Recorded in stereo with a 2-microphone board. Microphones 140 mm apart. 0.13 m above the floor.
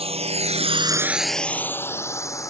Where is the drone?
45° right (ahead or behind); by 2.5 s 20° left (ahead or behind).